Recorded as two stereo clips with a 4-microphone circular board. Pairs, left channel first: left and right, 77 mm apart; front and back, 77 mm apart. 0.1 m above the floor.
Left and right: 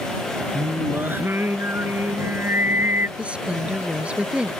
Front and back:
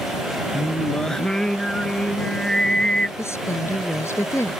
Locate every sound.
0.5 s singing: 75° right
3.2 s a woman speaking: 20° right